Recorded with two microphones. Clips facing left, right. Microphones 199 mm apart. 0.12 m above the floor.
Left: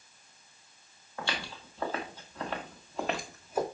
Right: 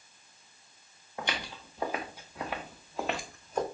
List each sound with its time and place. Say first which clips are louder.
1.2 s footsteps: right 1 dB; 20° right (ahead or behind), 2.5 m; by 3.6 s 5° left (ahead or behind), 1.5 m